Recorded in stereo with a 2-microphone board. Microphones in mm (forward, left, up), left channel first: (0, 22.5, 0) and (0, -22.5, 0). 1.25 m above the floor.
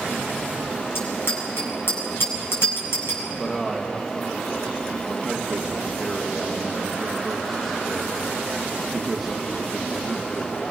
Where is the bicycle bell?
65° left (ahead or behind), 7.5 m.